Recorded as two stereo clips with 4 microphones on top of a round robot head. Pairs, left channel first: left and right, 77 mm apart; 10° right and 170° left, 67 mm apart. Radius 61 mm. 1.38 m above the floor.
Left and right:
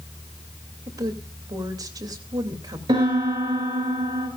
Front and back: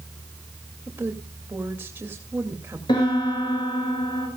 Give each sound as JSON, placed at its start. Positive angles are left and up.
{"t": 0.9, "sound": "a woman speaking", "azimuth_deg": -130, "distance_m": 2.5}
{"t": 2.9, "sound": "a piano", "azimuth_deg": -45, "distance_m": 6.0}